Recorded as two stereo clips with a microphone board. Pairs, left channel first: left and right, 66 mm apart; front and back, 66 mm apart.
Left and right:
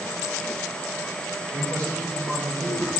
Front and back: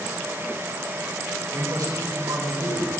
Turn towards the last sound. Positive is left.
turn(degrees=-145)